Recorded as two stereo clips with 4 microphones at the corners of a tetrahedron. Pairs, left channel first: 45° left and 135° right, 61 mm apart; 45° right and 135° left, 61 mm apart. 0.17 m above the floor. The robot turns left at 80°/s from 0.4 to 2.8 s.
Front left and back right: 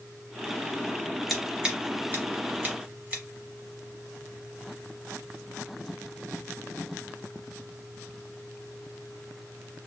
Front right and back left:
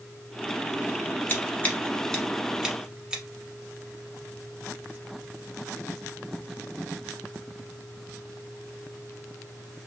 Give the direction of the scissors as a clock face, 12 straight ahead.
1 o'clock.